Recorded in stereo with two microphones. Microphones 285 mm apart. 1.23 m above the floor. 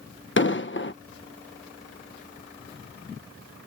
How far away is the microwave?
No microwave in this recording.